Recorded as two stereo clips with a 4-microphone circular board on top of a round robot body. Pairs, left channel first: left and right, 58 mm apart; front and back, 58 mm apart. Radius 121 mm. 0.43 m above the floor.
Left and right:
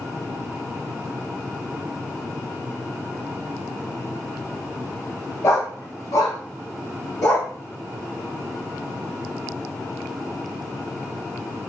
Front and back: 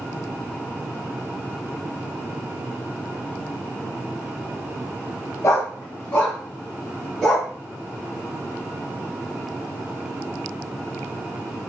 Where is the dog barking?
45° left, 0.6 m; by 7.5 s 80° left, 1.8 m.